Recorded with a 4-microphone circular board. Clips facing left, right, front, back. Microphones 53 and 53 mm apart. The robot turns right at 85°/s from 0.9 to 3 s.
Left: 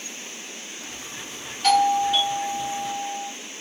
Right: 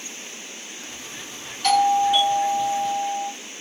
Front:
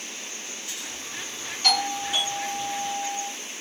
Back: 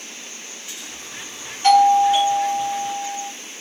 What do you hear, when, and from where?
1.6 s a doorbell: 165° left, 1.5 m; by 3.3 s 80° right, 1.5 m